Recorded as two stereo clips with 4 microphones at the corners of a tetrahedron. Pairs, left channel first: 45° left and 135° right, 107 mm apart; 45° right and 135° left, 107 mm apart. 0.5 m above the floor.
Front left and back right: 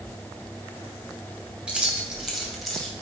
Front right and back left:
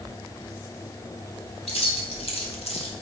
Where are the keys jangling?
55° right, 2.5 m; by 2.9 s 40° right, 2 m.